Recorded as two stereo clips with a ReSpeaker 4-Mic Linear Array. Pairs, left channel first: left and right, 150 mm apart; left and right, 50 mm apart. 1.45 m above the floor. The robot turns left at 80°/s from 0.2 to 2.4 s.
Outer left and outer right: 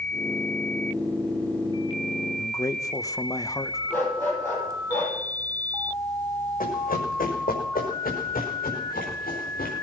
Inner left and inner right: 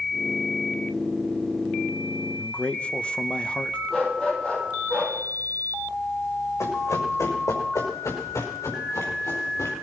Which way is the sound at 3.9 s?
15° left (ahead or behind).